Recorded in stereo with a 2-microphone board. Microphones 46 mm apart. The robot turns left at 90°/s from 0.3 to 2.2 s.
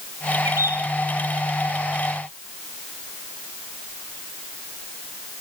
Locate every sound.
0.5 s a bird: 85° right, 3 m; by 0.8 s 120° right, 3 m